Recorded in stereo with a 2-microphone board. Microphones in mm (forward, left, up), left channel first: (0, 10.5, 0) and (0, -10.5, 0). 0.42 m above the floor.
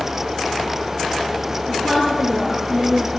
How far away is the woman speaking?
About 9.5 m.